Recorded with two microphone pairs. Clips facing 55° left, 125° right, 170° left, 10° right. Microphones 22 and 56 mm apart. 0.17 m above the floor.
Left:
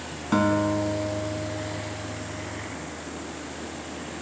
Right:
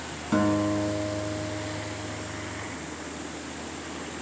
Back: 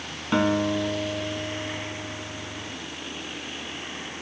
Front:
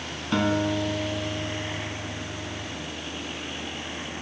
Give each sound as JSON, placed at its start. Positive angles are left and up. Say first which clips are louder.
{"t": 0.3, "sound": "a guitar", "louder": "left 2 dB, back 2 dB", "azimuth_deg": 105, "distance_m": 1.5}